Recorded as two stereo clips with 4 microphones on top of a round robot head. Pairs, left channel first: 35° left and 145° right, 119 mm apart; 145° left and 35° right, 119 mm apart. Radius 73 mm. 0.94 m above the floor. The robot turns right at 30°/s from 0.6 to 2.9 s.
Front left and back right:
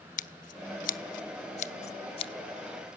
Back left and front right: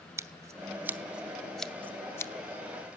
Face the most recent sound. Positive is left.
turn(degrees=100)